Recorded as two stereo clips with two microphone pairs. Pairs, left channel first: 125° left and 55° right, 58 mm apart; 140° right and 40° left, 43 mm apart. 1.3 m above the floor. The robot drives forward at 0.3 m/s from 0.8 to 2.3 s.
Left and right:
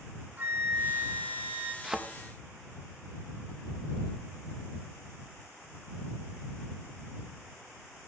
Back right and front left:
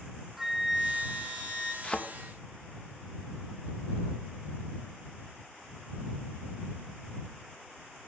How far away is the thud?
About 0.5 m.